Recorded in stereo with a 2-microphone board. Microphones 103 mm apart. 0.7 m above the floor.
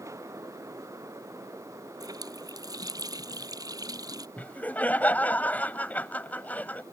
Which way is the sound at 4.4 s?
15° left (ahead or behind).